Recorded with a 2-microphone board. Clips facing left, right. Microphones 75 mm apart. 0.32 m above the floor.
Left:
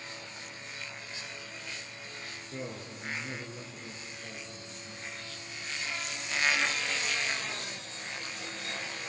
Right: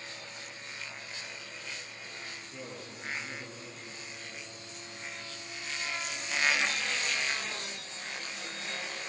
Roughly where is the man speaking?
Left.